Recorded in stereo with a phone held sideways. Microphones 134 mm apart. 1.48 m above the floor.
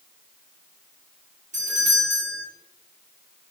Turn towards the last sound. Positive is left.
turn(degrees=-75)  # may be behind; listen again after turning